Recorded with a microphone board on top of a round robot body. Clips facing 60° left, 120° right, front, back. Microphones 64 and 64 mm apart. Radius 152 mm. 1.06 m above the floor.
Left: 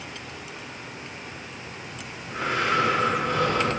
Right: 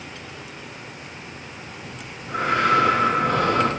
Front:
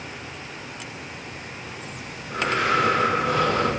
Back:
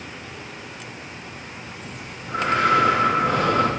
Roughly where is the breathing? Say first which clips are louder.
Right 1 dB, even; behind right.